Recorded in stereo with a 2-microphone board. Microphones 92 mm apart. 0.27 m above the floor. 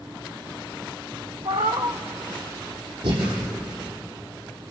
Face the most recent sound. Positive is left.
turn(degrees=-75)  # may be behind; listen again after turning